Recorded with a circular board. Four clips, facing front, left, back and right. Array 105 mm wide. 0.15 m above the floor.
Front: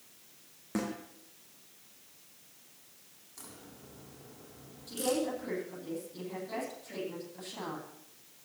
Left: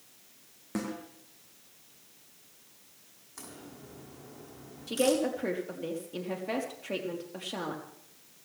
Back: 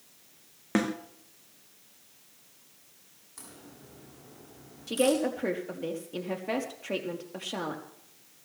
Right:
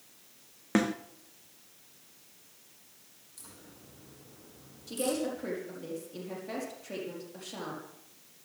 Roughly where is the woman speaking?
Behind.